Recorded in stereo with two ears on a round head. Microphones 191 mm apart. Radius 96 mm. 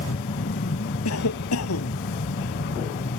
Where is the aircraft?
50° left (ahead or behind).